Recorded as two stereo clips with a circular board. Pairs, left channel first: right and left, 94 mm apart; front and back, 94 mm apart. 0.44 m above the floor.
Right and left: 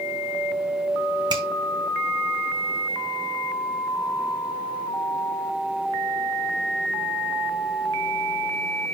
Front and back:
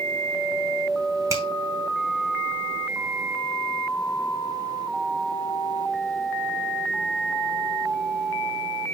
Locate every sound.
1.3 s a finger snap: 125° left, 2.5 m